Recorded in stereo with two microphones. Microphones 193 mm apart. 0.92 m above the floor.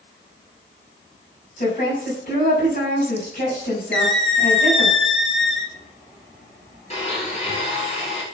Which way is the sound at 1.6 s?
50° left (ahead or behind).